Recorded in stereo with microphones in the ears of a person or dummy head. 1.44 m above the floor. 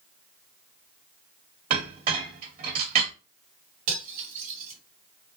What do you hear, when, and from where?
1.7 s a clink: 50° right (ahead or behind), 2 m
3.9 s cutlery clinking: 50° right (ahead or behind), 2.5 m